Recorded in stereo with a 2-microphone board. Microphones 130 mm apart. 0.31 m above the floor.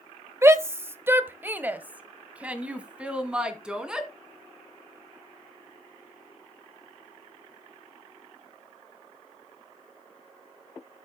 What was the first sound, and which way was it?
A shout, 20° right (ahead or behind).